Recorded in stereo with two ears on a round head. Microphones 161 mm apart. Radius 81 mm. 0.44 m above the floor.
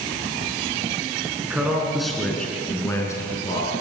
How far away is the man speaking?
About 5.5 m.